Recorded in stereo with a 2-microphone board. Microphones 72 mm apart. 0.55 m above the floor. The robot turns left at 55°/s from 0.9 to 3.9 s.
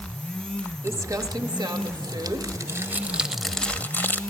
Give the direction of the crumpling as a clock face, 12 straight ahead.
1 o'clock.